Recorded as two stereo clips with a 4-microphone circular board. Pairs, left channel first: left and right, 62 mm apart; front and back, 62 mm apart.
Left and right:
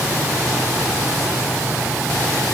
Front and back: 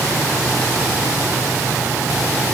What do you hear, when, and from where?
Only background noise.